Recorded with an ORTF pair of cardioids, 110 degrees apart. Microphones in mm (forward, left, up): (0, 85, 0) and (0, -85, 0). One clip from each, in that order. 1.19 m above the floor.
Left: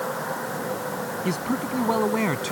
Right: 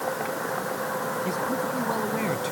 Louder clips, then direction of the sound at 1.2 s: Right 1 dB; 45° left.